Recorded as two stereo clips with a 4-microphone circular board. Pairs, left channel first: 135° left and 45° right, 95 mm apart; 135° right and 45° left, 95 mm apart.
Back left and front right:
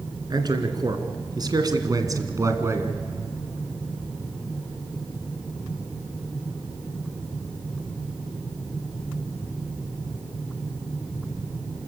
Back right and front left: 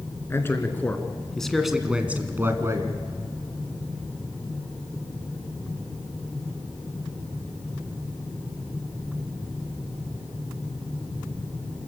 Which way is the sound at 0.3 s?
75° right.